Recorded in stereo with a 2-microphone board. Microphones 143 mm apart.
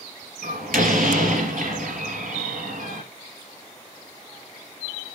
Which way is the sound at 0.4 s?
75° right (ahead or behind).